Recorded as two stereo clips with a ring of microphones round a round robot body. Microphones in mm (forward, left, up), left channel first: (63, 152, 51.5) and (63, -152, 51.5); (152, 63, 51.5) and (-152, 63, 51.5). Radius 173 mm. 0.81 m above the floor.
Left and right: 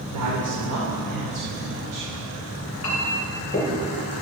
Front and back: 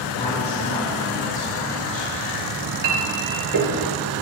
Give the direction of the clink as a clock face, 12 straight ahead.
7 o'clock.